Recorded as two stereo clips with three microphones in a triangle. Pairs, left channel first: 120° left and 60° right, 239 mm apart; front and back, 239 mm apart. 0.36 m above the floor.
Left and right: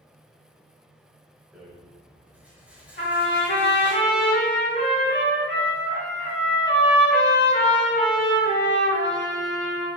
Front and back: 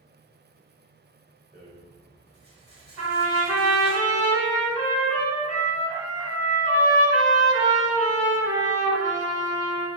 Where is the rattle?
140° right, 1.2 m.